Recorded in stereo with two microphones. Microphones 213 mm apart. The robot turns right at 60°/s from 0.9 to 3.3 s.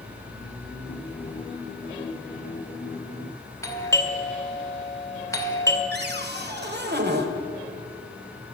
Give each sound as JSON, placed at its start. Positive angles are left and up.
{"t": 3.6, "sound": "a doorbell", "side_deg": 15, "distance_m": 2.0}
{"t": 5.9, "sound": "a cupboard door", "side_deg": -50, "distance_m": 1.6}